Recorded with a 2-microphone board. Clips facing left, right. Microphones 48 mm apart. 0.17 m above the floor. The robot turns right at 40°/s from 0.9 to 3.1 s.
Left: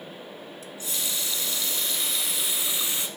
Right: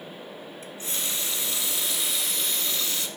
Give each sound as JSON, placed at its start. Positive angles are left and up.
{"t": 0.6, "sound": "a running tap", "azimuth_deg": -50, "distance_m": 1.0}